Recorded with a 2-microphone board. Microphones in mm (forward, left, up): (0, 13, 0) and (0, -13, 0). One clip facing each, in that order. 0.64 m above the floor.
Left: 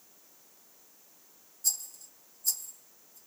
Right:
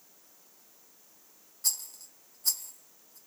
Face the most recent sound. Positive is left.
turn(degrees=-80)